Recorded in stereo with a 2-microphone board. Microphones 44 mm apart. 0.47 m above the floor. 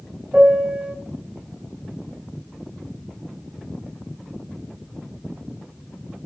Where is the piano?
30° right (ahead or behind), 0.7 m.